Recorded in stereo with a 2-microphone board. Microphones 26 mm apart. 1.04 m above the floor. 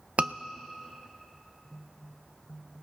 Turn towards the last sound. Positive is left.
turn(degrees=-60)  # may be behind; listen again after turning